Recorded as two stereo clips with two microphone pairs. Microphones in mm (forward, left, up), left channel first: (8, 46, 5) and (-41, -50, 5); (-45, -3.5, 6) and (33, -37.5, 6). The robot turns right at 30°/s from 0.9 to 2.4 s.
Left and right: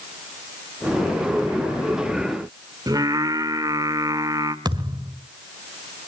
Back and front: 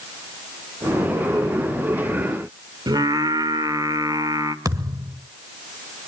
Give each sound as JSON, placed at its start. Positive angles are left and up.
{"t": 2.9, "sound": "singing", "azimuth_deg": -65, "distance_m": 1.8}
{"t": 4.7, "sound": "a thud", "azimuth_deg": -70, "distance_m": 1.8}